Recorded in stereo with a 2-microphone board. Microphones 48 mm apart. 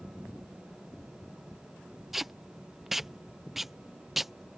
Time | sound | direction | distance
2.1 | tape being pulled | 5° right (ahead or behind) | ?